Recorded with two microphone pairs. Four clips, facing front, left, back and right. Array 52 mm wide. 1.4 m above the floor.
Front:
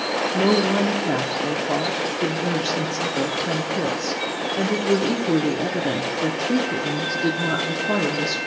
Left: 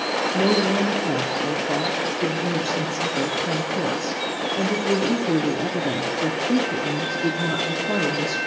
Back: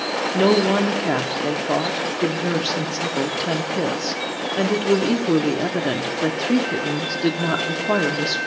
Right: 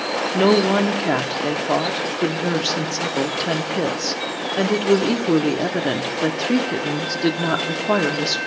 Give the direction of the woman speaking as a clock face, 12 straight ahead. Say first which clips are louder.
Right 5 dB, back 3 dB; 4 o'clock.